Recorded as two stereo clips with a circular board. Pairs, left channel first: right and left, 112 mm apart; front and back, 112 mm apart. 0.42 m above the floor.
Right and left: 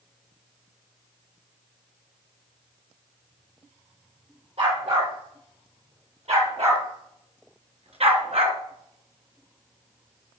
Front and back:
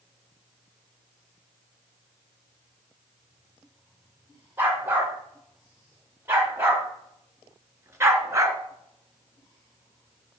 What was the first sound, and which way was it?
A dog barking, 110° left.